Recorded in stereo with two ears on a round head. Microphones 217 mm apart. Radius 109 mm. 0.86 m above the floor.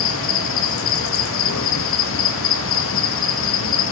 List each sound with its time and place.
0.0 s an insect: 55° left (ahead or behind), 0.9 m